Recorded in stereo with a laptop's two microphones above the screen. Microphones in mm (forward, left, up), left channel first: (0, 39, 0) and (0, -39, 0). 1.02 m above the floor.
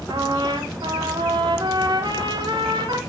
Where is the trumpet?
70° right (ahead or behind), 3 m.